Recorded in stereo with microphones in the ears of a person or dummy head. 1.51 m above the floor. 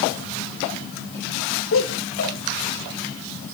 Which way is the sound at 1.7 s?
85° left.